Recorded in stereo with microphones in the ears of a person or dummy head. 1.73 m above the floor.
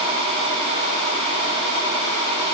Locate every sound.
Only background noise.